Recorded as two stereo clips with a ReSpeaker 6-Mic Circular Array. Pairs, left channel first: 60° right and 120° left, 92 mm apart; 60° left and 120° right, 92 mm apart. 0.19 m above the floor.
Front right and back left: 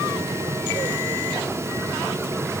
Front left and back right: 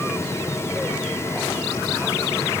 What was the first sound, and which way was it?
Only background noise.